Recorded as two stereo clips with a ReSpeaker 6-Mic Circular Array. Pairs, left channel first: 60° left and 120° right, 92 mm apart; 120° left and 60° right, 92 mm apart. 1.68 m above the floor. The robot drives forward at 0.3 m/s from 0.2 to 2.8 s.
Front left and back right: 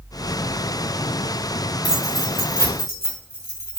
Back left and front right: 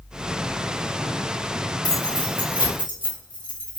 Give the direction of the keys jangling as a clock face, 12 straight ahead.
9 o'clock.